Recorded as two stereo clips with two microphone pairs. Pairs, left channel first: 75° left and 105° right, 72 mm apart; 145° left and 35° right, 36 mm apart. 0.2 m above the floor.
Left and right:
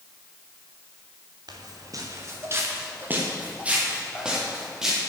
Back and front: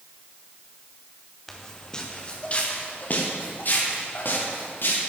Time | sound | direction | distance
1.5 | footsteps | 130° right | 2 m